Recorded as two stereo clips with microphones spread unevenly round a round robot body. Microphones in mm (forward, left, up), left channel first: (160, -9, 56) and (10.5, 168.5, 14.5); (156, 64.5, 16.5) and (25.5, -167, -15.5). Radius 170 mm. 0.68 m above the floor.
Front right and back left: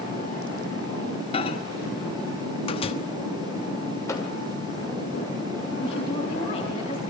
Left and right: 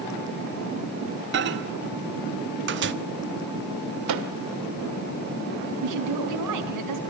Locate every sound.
1.3 s a microwave: 120° right, 1.1 m
4.1 s a microwave: 135° right, 1.8 m
5.8 s a woman speaking: 125° right, 5 m